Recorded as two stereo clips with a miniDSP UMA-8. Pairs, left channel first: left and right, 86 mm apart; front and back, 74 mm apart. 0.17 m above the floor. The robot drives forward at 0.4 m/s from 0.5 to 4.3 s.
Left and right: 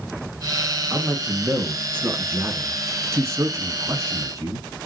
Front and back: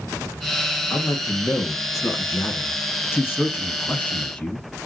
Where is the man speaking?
30° right, 2.5 m; by 4.9 s 65° right, 1.7 m.